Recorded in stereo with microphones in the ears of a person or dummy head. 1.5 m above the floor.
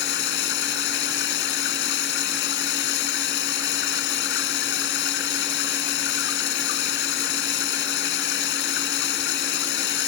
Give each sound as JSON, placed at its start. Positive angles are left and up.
{"t": 0.0, "sound": "running water", "side_deg": 70}